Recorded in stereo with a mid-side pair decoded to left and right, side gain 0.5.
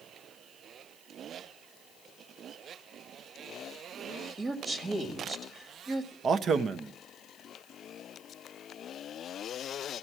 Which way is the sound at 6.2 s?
50° right.